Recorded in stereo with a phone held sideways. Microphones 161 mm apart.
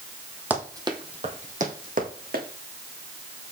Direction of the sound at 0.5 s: 10° right (ahead or behind).